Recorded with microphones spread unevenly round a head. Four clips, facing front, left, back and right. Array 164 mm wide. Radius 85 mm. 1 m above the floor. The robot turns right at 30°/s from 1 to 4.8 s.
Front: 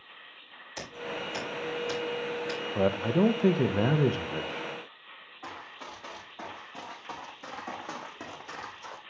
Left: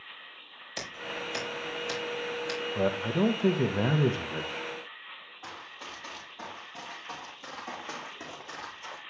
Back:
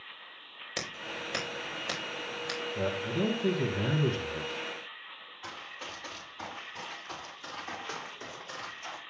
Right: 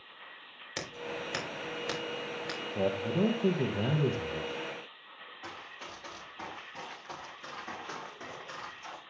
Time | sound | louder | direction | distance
0.8 | scissors | even, front 3 dB | 145° right | 3.5 m
2.8 | a man speaking | left 2 dB, front 7 dB | straight ahead | 0.6 m
5.4 | running footsteps | left 2 dB, front 2 dB | 5° right | 5.5 m